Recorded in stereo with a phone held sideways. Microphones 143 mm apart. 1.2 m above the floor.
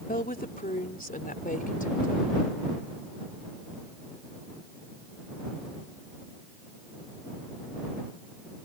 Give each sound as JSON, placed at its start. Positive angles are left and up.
{"t": 0.1, "sound": "a woman speaking", "side_deg": 75}